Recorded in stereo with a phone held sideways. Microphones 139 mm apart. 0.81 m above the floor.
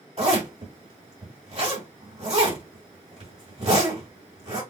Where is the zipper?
50° right (ahead or behind), 2.5 m.